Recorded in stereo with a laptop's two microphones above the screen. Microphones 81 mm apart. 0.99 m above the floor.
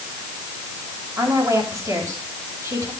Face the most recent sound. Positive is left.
turn(degrees=-40)  # may be behind; listen again after turning